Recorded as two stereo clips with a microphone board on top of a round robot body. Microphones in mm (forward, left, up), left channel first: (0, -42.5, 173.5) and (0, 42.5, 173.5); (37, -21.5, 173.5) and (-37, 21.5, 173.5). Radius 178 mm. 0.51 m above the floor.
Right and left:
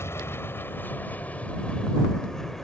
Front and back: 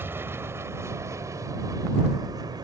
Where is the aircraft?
150° right; by 2.6 s 175° right.